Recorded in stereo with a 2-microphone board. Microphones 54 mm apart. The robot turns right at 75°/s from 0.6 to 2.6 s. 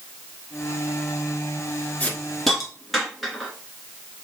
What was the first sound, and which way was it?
A hiss, 30° left (ahead or behind).